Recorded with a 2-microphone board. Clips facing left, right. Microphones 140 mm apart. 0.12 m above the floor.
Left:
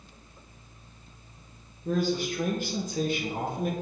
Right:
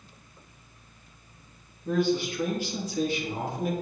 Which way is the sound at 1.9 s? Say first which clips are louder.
Right 2 dB; 40° left (ahead or behind).